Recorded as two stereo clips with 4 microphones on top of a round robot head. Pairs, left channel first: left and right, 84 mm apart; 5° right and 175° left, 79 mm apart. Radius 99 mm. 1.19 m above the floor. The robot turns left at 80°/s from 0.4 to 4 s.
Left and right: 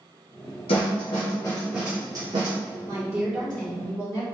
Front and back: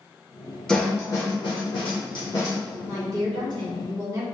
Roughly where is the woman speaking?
Behind right.